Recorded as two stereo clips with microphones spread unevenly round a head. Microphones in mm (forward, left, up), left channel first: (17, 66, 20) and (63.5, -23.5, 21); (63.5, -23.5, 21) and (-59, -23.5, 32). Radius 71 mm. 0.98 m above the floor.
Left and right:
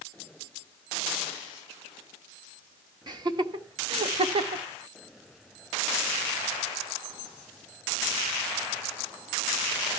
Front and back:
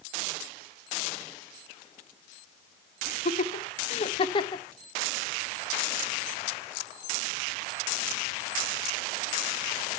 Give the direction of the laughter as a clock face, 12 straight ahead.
1 o'clock.